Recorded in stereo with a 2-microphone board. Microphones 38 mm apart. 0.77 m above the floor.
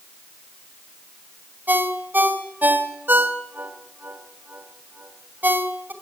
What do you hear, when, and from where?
1.7 s a ringtone: 50° right (ahead or behind), 2.5 m